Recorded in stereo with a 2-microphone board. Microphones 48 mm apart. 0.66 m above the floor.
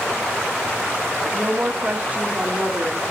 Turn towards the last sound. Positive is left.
turn(degrees=-30)  # may be behind; listen again after turning